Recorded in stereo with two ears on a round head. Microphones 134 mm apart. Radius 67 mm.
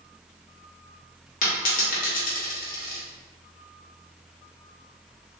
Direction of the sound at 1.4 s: 55° left (ahead or behind).